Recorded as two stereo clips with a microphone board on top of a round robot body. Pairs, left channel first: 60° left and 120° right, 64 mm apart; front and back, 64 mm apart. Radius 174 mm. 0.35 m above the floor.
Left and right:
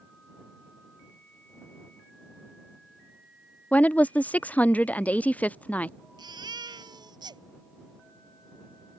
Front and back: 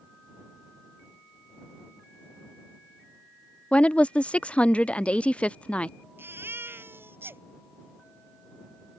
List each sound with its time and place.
3.7 s a woman speaking: 40° left
6.2 s a baby crying: 125° right